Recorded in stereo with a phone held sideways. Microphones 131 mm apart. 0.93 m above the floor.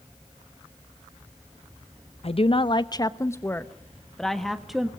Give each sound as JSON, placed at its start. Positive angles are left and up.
{"t": 2.2, "sound": "a woman speaking", "side_deg": 50, "distance_m": 0.8}